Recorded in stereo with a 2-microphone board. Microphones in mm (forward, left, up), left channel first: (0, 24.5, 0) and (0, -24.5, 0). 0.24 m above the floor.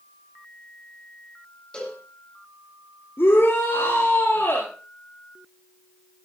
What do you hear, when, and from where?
1.7 s a cowbell: 20° left (ahead or behind), 8.5 m
3.2 s a shout: 60° left (ahead or behind), 4 m